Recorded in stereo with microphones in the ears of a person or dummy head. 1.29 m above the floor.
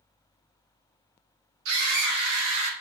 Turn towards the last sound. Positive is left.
turn(degrees=-75)  # may be behind; listen again after turning